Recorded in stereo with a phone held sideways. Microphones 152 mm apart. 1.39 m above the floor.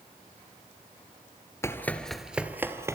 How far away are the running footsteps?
About 1.4 m.